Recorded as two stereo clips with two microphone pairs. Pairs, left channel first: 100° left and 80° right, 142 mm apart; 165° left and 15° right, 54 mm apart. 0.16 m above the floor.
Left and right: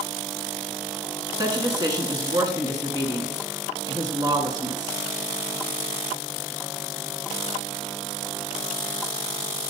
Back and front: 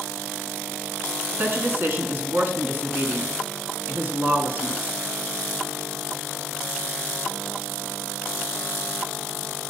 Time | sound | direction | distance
1.4 | a woman speaking | 35° right | 1.3 m